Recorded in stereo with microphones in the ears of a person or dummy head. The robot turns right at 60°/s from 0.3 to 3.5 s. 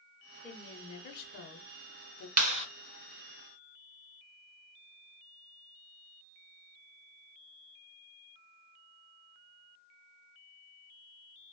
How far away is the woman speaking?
About 0.6 m.